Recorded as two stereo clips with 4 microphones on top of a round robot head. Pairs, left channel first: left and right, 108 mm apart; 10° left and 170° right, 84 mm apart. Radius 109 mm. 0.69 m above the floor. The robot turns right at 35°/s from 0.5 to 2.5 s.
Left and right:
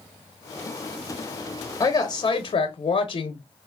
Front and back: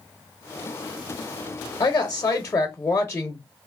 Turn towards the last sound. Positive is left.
turn(degrees=70)